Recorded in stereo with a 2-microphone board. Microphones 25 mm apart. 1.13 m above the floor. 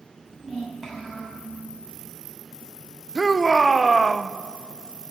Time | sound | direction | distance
0.2 | a child speaking | 10° right (ahead or behind) | 7 m
3.1 | a shout | 10° right (ahead or behind) | 0.6 m